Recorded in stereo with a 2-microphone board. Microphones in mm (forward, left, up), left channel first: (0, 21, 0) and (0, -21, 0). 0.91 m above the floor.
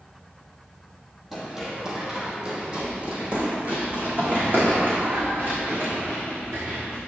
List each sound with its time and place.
1.3 s running footsteps: 5° right (ahead or behind), 1.9 m; by 7.0 s 50° right (ahead or behind), 4.5 m